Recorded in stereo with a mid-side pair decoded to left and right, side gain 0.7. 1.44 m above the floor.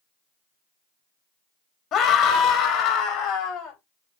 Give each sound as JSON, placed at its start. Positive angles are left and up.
{"t": 1.9, "sound": "a scream", "azimuth_deg": 50, "distance_m": 1.1}